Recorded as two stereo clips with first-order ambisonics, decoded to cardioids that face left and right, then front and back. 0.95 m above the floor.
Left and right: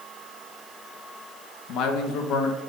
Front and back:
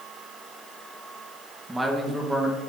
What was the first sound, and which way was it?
A man speaking, 100° left.